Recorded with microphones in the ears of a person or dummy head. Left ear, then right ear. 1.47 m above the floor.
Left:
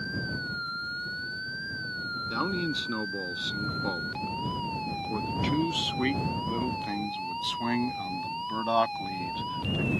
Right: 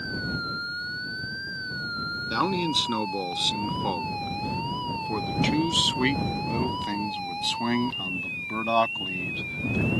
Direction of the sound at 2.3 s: 20° right (ahead or behind).